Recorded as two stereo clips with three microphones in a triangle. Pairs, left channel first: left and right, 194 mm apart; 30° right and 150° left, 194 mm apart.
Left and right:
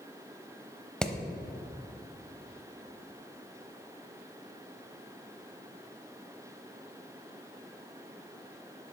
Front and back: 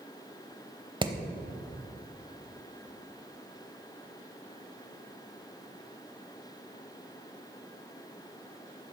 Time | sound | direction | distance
1.0 | hammering | 170° left | 0.8 m